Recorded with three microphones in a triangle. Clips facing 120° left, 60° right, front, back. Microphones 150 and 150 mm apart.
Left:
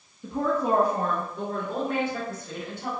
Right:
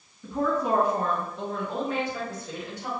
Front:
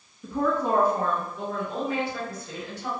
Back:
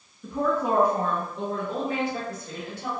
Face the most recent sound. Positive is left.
turn(degrees=145)